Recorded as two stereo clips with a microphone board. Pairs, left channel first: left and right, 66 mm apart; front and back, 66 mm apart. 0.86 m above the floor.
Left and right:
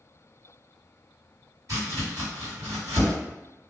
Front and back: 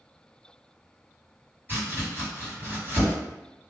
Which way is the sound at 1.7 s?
125° right.